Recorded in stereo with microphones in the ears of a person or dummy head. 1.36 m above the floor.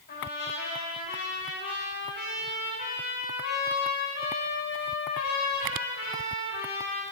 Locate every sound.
0.1 s a trumpet: 55° left (ahead or behind), 3.5 m